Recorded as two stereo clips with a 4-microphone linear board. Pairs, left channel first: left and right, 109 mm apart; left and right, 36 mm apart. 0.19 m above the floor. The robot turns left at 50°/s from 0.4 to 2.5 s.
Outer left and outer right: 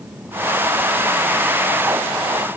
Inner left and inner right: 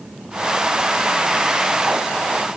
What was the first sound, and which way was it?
Only background noise.